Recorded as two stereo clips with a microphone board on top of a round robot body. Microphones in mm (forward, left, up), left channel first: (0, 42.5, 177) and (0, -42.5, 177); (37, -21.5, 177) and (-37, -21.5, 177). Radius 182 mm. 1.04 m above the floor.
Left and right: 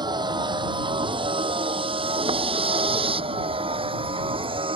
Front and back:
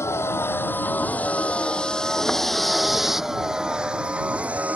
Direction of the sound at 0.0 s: 55° right.